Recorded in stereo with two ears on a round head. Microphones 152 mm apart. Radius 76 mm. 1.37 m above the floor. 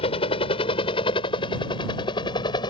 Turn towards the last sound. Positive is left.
turn(degrees=25)  # may be behind; listen again after turning